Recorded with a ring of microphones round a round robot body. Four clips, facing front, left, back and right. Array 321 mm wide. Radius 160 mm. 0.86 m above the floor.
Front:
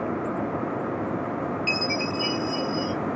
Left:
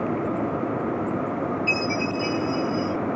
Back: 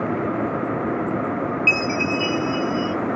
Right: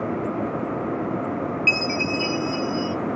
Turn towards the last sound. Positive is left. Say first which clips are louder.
# even, back 5 dB
turn(degrees=-80)